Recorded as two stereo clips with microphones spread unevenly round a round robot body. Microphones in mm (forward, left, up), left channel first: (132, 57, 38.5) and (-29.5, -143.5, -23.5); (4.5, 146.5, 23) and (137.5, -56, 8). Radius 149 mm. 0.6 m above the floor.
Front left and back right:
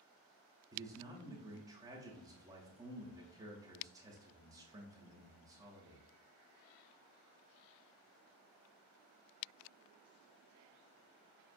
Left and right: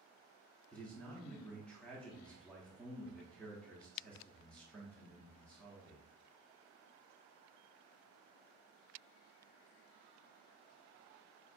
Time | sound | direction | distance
0.7 | a man speaking | 150° right | 0.6 m